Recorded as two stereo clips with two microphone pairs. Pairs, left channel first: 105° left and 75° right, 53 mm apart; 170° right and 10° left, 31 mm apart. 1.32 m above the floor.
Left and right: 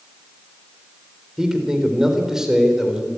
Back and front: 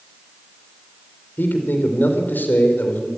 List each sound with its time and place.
1.4 s a man speaking: 155° right, 4 m